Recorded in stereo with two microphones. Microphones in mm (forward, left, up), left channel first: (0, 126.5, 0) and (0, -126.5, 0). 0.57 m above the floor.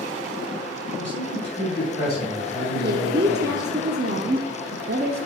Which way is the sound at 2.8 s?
40° right (ahead or behind).